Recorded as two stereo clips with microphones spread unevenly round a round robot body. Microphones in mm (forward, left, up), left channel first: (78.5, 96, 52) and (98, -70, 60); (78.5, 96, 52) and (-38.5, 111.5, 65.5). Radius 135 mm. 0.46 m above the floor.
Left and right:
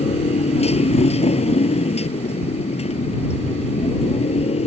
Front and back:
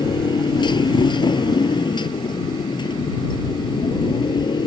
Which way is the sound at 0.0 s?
45° left.